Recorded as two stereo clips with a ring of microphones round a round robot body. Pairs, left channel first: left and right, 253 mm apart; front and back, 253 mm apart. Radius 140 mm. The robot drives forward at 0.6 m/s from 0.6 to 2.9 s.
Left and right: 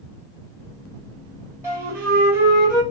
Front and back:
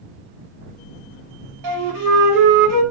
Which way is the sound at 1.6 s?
170° right.